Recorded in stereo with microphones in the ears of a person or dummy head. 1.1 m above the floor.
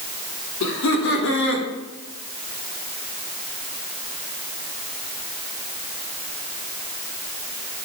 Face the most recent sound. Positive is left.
turn(degrees=70)  # may be behind; listen again after turning